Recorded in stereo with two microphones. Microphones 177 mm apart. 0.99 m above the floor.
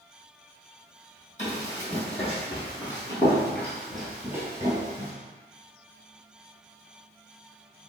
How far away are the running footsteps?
About 1.9 m.